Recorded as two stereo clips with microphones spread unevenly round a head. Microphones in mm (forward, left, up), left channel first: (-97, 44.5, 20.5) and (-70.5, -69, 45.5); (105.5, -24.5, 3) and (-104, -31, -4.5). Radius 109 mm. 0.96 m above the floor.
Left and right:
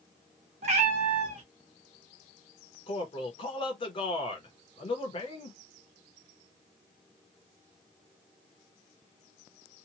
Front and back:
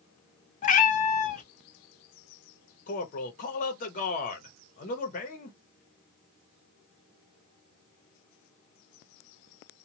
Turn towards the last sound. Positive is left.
turn(degrees=60)